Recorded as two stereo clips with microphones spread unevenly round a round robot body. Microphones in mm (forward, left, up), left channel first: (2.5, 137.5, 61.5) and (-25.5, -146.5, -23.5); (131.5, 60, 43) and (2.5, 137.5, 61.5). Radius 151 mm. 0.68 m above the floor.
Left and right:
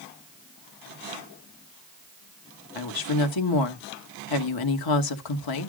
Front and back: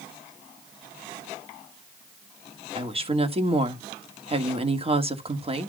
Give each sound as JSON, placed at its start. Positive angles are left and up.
{"t": 2.8, "sound": "a woman speaking", "azimuth_deg": 95, "distance_m": 1.7}